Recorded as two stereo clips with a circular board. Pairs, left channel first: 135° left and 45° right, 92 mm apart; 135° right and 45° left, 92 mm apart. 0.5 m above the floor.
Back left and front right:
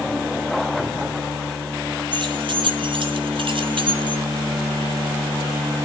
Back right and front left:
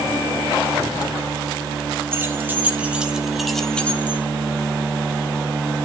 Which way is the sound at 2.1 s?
20° right.